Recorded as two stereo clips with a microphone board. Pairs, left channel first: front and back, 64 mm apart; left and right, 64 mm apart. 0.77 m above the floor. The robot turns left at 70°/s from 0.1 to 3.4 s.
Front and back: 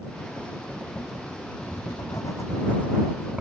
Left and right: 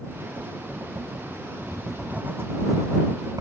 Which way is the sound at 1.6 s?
15° left.